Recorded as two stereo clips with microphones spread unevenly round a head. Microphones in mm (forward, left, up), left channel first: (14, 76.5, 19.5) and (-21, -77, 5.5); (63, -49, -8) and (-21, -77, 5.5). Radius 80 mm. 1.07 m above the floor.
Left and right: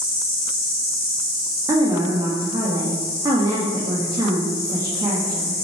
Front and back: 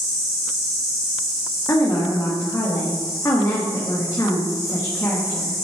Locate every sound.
0.0 s an insect: 70° left, 2.5 m
1.7 s a woman speaking: 35° right, 1.6 m